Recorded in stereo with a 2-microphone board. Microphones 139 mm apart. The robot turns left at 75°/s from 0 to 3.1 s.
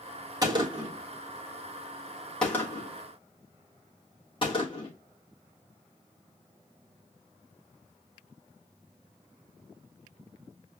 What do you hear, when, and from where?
0.4 s a gunshot: 25° right (ahead or behind), 1.4 m; by 4.9 s 40° left (ahead or behind), 1.4 m